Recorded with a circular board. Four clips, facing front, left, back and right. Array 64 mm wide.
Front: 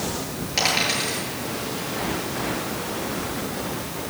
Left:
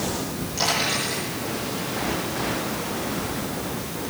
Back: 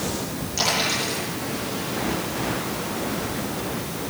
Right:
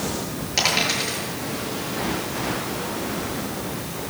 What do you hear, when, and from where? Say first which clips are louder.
0.6 s a dropped coin: right 1 dB, front 1 dB; 45° right, 8 m